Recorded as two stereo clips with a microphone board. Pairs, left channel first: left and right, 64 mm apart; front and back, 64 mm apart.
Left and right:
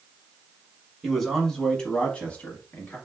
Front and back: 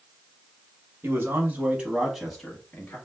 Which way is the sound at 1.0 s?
Straight behind.